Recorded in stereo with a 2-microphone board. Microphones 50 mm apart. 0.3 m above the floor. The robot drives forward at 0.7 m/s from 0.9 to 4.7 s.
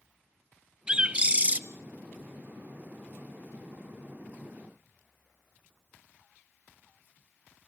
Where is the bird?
20° right (ahead or behind), 0.8 m; by 1.6 s 35° right (ahead or behind), 0.5 m.